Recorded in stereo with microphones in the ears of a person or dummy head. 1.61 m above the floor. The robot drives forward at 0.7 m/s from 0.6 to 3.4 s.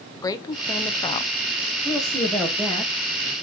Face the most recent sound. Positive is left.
turn(degrees=0)  # may be behind; listen again after turning